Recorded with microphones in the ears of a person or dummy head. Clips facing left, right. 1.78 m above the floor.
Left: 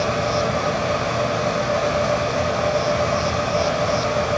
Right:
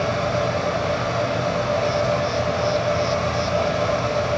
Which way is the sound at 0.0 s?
10° left (ahead or behind).